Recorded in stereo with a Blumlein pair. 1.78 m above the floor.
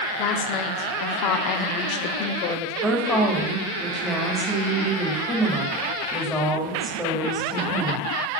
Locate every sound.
0.2 s a woman speaking: 35° left, 1.1 m
2.8 s a woman speaking: 5° left, 3 m